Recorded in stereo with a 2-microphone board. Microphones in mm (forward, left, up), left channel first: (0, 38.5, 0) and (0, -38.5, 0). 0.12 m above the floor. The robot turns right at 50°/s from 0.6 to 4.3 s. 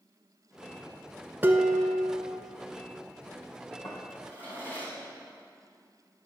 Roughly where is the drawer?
Left.